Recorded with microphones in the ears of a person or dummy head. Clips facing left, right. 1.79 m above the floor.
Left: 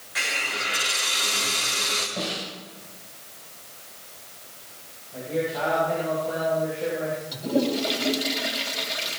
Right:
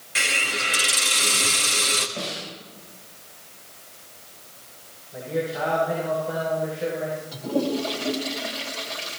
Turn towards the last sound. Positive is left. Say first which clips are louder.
# left 1 dB
turn(degrees=20)  # may be behind; listen again after turning